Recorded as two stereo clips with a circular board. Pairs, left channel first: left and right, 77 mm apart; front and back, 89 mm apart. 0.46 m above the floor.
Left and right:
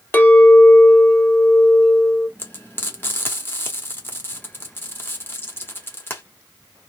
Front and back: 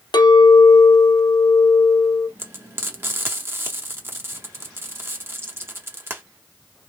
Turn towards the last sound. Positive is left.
turn(degrees=135)